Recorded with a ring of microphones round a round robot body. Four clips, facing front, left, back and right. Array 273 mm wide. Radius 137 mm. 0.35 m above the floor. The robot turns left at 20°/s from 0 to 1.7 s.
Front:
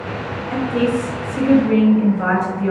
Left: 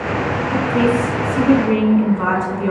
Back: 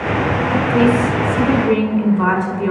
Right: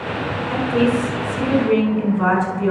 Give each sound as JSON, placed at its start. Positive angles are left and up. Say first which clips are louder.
{"t": 0.5, "sound": "a woman speaking", "louder": "left 1 dB, back 3 dB", "azimuth_deg": -170, "distance_m": 4.0}